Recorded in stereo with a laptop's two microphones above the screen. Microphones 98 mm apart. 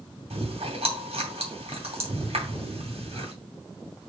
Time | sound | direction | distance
0.3 | chewing | 85° right | 2.5 m